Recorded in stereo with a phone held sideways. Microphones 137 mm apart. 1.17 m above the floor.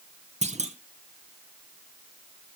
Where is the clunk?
55° right (ahead or behind), 1.0 m.